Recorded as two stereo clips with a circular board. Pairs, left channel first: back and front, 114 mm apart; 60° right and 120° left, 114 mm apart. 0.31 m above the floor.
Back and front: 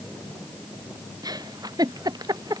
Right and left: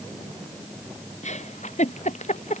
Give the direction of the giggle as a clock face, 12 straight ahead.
2 o'clock.